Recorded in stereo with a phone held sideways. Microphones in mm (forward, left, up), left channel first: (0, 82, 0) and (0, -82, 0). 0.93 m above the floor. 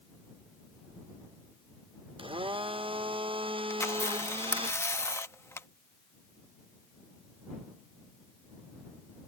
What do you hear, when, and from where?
2.2 s a blender: 35° right (ahead or behind)
3.7 s a camera shutter: 15° left (ahead or behind)